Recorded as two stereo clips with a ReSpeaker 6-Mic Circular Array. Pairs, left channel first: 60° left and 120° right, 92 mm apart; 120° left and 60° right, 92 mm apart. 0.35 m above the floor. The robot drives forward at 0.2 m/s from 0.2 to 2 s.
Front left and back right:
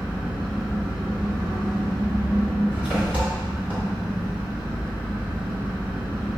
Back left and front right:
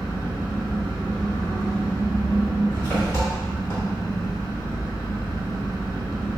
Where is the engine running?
170° left, 1.8 m.